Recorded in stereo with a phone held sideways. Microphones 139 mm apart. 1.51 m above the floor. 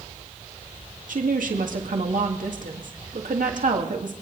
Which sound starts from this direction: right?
A woman speaking, at 1.1 s.